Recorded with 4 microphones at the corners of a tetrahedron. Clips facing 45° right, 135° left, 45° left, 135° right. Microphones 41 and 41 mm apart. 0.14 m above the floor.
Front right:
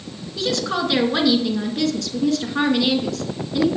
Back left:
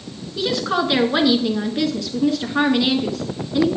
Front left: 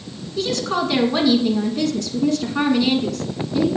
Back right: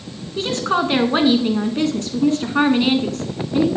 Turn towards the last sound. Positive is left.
turn(degrees=-150)